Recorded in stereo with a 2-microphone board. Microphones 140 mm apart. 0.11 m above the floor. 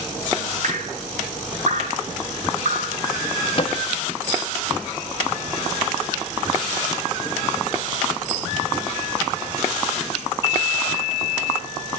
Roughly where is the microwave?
Left.